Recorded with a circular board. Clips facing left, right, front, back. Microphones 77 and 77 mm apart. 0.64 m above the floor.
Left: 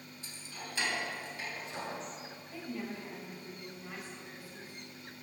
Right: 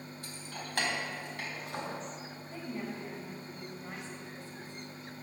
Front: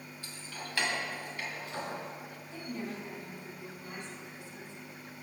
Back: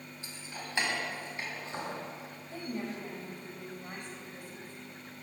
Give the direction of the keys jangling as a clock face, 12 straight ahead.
4 o'clock.